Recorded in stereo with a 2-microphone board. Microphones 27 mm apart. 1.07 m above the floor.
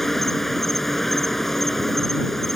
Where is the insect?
10° left (ahead or behind).